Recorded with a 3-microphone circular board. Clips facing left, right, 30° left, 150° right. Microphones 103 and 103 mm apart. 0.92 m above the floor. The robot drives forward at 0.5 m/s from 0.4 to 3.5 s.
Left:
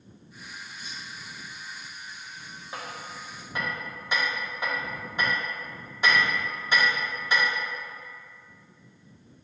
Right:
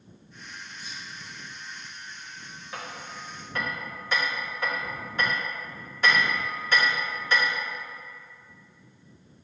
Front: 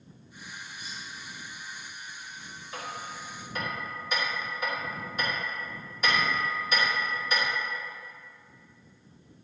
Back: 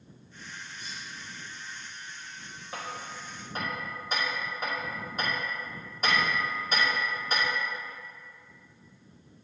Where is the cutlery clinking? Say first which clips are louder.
Even, even; 105° left, 1.5 m; by 1.0 s 110° left, 1.5 m.